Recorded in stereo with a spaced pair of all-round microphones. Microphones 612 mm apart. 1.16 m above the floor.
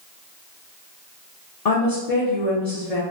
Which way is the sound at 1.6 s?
75° left (ahead or behind).